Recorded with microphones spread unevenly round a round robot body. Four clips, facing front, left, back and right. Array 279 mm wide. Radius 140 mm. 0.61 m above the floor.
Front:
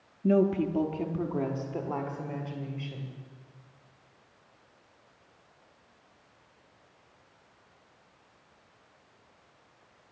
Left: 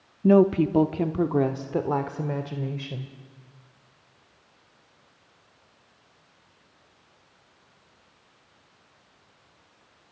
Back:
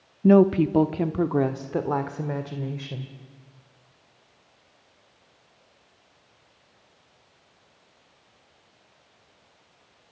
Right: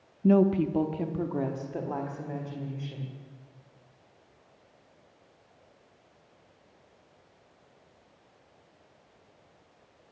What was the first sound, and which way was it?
A woman speaking, 145° left.